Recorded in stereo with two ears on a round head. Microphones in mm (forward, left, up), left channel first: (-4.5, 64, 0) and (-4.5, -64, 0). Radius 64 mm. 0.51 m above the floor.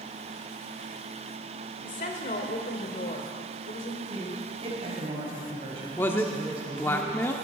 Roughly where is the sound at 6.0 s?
Centre.